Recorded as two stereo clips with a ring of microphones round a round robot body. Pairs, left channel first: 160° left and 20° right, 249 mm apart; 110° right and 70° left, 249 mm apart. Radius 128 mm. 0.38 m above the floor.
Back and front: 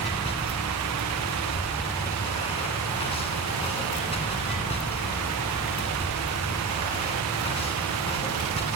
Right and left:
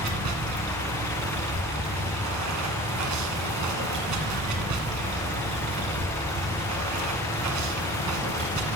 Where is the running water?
90° left, 1.9 m.